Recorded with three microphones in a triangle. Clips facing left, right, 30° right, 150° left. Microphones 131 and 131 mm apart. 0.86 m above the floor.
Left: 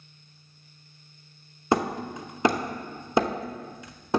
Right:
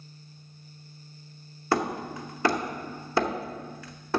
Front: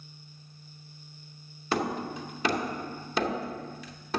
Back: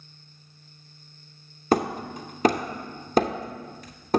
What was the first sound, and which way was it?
Hammering, 150° left.